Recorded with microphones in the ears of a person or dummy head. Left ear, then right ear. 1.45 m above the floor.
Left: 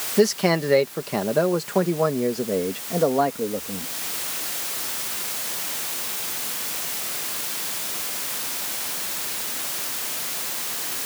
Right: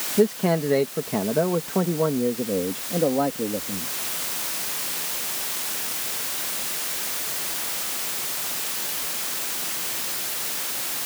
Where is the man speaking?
70° left (ahead or behind); by 3.9 s 50° left (ahead or behind).